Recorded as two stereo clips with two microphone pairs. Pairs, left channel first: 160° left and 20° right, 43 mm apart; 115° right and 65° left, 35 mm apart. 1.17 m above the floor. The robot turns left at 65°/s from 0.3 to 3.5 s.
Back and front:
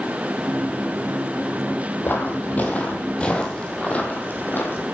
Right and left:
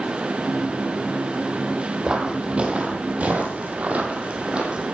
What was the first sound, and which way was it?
Footsteps, 125° left.